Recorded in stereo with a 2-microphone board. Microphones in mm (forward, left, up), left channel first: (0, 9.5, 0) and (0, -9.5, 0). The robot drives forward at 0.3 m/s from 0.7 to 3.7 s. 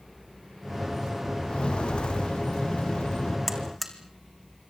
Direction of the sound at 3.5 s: 5° left (ahead or behind).